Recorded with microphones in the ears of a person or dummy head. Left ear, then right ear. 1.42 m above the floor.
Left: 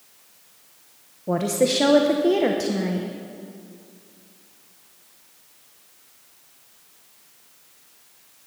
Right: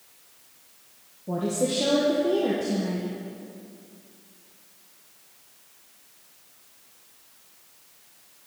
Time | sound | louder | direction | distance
1.3 | a woman speaking | left 6 dB | 65° left (ahead or behind) | 0.8 m